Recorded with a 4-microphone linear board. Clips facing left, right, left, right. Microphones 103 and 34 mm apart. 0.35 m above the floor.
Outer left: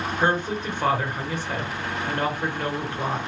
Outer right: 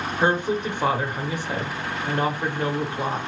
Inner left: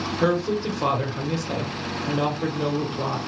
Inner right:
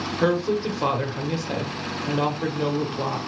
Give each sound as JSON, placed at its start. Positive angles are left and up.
{"t": 0.2, "sound": "a woman speaking", "side_deg": -15, "distance_m": 0.8}